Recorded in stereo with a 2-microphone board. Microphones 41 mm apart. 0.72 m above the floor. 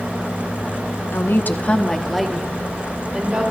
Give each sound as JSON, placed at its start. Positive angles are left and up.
{"t": 1.1, "sound": "a woman speaking", "side_deg": 60, "distance_m": 1.0}